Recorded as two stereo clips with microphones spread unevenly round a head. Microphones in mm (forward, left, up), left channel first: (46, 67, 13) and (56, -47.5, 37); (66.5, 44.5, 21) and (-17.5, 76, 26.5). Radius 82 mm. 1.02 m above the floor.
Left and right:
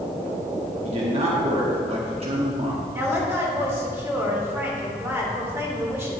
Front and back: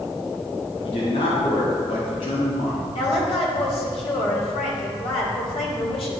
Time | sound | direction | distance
0.8 | a man speaking | 50° right | 1.8 m
2.9 | a woman speaking | 15° right | 3 m